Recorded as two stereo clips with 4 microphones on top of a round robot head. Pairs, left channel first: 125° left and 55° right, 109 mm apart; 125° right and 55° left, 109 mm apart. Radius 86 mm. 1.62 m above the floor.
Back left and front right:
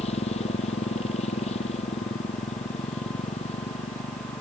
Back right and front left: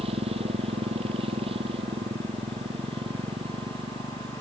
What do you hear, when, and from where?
0.0 s a motorcycle: 95° left; by 4.4 s 100° left